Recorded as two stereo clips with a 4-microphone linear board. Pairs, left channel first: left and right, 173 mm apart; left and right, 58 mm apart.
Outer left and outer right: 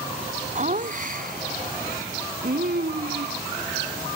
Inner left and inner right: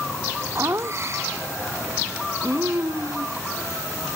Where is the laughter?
45° right (ahead or behind); by 4.2 s 65° right (ahead or behind).